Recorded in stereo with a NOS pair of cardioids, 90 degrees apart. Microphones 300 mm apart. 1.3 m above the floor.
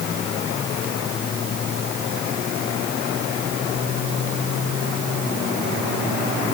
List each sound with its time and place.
Only background noise.